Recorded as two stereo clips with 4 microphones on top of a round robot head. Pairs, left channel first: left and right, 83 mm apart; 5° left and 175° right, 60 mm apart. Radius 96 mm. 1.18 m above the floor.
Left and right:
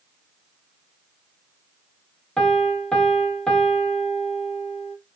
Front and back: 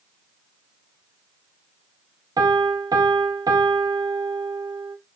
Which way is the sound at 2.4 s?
170° left.